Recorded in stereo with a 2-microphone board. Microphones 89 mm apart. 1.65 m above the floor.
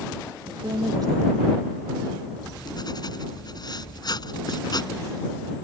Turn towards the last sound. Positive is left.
turn(degrees=55)  # may be behind; listen again after turning